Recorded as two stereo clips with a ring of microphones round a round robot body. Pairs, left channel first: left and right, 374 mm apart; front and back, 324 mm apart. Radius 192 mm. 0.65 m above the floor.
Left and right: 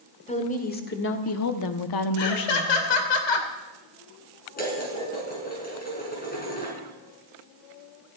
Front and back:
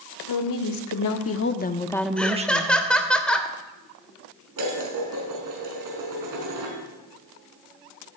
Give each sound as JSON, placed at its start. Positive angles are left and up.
{"t": 0.3, "sound": "a woman speaking", "azimuth_deg": 15, "distance_m": 2.0}
{"t": 2.2, "sound": "laughter", "azimuth_deg": 85, "distance_m": 3.0}
{"t": 4.6, "sound": "dishes clattering", "azimuth_deg": 160, "distance_m": 5.5}